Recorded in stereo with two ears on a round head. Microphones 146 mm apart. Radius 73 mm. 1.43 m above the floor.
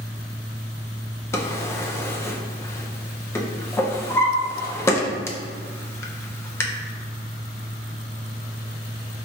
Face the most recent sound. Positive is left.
turn(degrees=15)  # may be behind; listen again after turning